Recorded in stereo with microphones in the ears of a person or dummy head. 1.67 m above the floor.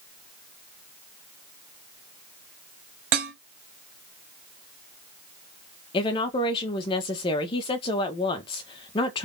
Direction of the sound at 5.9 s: 30° left (ahead or behind).